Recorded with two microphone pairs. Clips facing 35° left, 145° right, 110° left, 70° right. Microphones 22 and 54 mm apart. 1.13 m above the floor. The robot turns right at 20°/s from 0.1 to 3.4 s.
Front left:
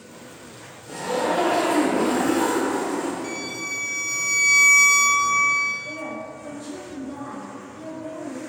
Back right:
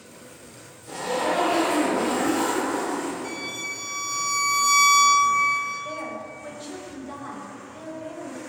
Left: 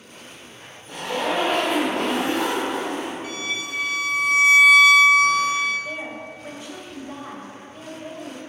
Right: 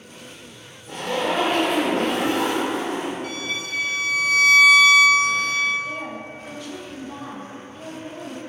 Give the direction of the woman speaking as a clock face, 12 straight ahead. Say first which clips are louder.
Front left 1 dB, right 1 dB; 6 o'clock.